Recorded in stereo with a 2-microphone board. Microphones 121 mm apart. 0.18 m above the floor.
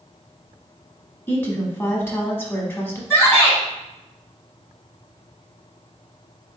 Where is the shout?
20° left (ahead or behind), 1.1 m.